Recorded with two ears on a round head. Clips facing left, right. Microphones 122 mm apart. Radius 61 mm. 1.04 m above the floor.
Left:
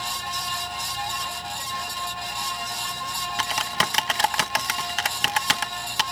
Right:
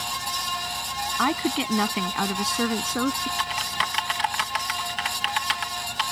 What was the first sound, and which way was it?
A woman speaking, 85° right.